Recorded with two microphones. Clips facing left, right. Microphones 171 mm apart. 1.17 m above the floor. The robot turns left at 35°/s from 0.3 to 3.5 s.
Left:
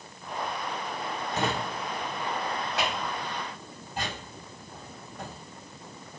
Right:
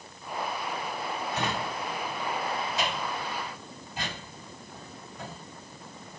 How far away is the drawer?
About 1.6 m.